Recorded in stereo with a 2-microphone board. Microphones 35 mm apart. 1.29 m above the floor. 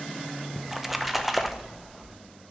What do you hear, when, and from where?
0.6 s a splash: centre (ahead or behind), 0.8 m